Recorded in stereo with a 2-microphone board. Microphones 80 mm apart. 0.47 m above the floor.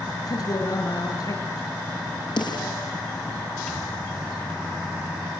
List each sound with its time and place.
0.3 s a man speaking: 50° left (ahead or behind), 6.5 m
2.4 s a snare drum: 65° left (ahead or behind), 10 m
3.7 s a microwave: centre (ahead or behind), 5 m